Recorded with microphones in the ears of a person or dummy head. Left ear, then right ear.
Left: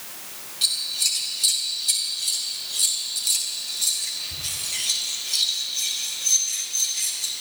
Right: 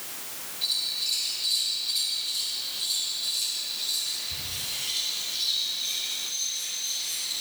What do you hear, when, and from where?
0.6 s scissors: 60° left (ahead or behind), 3 m